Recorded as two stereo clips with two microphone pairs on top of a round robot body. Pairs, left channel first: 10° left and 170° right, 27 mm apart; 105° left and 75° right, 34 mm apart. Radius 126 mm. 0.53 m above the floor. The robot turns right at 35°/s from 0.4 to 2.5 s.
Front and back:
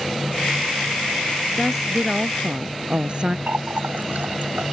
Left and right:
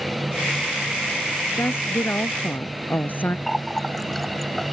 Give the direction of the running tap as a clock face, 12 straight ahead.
6 o'clock.